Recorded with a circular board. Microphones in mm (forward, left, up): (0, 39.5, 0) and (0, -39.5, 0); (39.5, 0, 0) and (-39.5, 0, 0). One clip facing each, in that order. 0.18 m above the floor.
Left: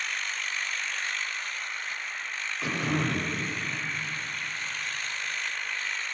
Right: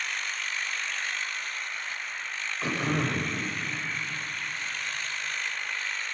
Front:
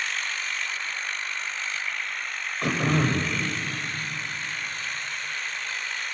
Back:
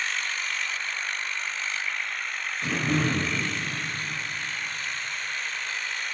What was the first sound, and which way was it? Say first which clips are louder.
Throat clearing: even, front 2 dB; 5° left.